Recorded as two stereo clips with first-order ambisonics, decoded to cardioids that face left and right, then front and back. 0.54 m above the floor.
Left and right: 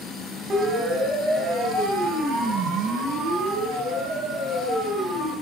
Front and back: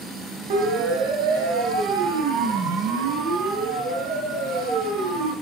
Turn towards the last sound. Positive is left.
turn(degrees=-150)